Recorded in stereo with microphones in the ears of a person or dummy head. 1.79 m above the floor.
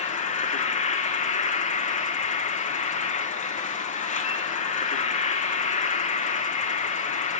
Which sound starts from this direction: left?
An insect, at 0.0 s.